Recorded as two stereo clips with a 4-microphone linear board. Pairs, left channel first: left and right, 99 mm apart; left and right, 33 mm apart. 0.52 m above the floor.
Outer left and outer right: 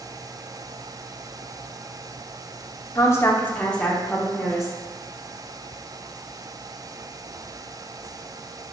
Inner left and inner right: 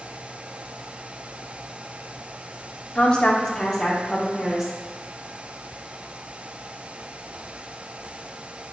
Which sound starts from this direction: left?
A woman speaking, at 3.0 s.